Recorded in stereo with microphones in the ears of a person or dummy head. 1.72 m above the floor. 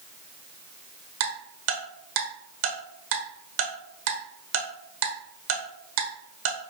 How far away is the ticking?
About 1.1 m.